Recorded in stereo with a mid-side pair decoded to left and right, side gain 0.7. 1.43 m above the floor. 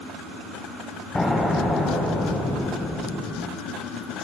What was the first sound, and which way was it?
An explosion, 15° left.